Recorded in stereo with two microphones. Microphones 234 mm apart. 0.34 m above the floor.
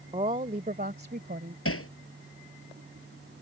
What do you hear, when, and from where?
0.1 s a woman speaking: 30° right (ahead or behind); by 1.6 s 45° right (ahead or behind)
1.6 s hammering: 70° left (ahead or behind)